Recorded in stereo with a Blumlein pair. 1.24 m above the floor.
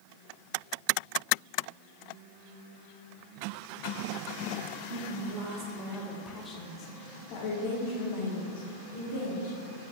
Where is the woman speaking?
55° right, 1.0 m; by 9.9 s 60° left, 3 m.